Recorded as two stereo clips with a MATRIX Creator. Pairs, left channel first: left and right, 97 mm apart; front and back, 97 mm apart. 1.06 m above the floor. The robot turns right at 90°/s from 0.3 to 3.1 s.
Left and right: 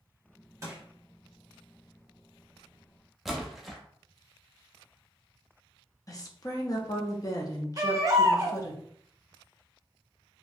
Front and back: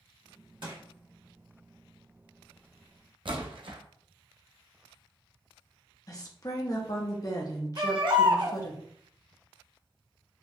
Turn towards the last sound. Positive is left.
turn(degrees=-145)